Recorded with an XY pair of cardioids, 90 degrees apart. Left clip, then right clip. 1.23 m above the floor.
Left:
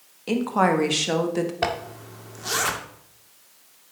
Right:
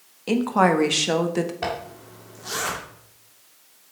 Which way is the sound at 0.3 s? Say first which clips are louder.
Right 2 dB; 15° right.